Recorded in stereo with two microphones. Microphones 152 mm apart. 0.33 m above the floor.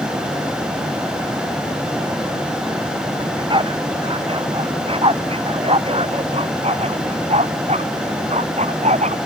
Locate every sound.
3.2 s a dog barking: 35° right (ahead or behind); by 9.2 s 50° right (ahead or behind)